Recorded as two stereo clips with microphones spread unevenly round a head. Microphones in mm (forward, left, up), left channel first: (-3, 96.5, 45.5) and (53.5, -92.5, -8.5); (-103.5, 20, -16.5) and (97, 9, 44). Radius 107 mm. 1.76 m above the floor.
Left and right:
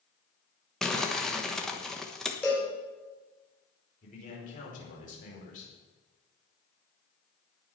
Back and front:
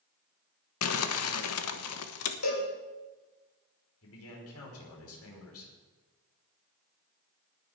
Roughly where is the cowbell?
Behind.